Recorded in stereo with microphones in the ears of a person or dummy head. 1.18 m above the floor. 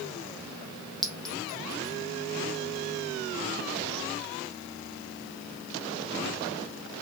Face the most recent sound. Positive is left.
turn(degrees=0)  # may be behind; listen again after turning